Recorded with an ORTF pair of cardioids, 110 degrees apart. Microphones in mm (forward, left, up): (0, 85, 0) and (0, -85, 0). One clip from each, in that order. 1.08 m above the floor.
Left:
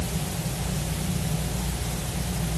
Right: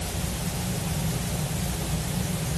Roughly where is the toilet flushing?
No toilet flushing in this recording.